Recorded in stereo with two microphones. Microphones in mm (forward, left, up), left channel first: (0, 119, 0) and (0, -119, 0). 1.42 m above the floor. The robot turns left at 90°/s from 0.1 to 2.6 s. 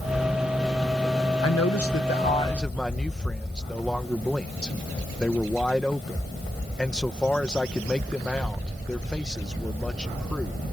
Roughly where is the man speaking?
Left.